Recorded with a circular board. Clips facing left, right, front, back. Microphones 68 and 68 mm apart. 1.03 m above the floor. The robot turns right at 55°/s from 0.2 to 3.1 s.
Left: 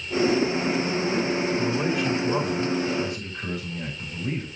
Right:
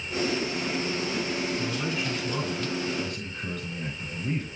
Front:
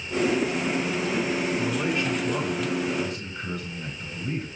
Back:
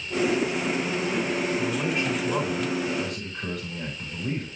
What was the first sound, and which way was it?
A man speaking, 80° left.